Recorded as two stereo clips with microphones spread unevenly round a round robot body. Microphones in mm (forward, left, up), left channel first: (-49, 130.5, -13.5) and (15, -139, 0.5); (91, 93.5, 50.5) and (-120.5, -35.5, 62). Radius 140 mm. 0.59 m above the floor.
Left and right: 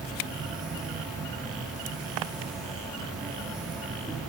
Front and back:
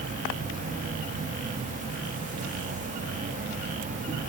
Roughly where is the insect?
Behind.